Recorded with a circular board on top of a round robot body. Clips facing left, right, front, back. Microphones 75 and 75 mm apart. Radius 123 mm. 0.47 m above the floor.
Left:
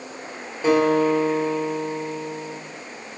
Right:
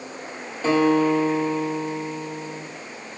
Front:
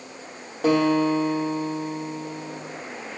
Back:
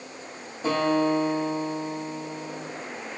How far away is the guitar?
About 1.5 m.